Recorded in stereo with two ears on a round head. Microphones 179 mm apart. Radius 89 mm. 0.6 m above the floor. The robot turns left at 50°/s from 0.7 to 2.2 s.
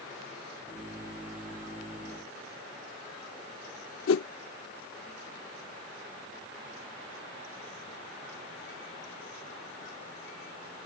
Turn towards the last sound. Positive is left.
turn(degrees=75)  # may be behind; listen again after turning